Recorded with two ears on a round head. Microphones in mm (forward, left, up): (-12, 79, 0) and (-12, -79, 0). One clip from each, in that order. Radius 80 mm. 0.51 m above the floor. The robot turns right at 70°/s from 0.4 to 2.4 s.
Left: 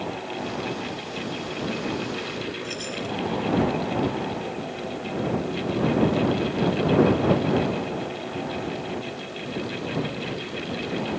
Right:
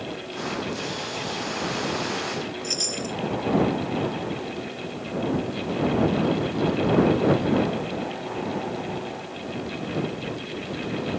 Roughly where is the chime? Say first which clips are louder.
Right 3 dB; right.